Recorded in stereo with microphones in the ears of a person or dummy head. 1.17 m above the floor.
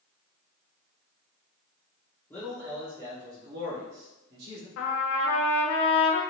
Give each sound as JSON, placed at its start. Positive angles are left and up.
{"t": 2.3, "sound": "a man speaking", "side_deg": 10, "distance_m": 1.1}
{"t": 4.8, "sound": "a trumpet", "side_deg": 70, "distance_m": 0.6}